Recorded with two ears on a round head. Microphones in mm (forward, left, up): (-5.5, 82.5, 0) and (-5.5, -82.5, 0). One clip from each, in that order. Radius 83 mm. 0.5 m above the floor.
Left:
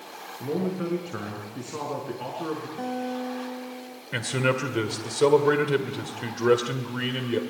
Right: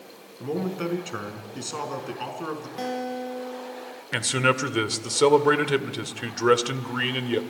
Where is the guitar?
75° right (ahead or behind), 1.4 m.